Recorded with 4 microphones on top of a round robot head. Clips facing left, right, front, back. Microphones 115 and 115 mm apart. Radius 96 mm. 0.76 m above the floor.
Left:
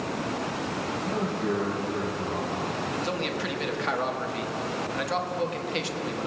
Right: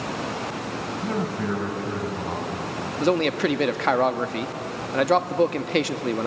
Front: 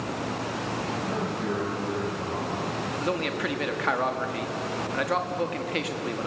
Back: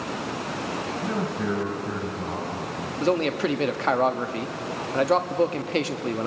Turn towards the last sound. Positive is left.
turn(degrees=-120)